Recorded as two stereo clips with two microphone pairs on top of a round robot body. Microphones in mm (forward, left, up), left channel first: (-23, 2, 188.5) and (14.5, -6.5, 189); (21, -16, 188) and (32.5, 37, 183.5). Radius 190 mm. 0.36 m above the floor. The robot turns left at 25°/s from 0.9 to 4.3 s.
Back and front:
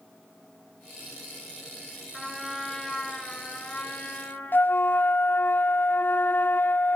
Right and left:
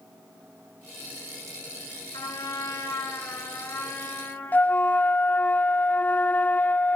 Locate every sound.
2.1 s a trumpet: 100° right, 3 m; by 4.8 s 155° right, 3 m
4.5 s a flute: 160° right, 0.6 m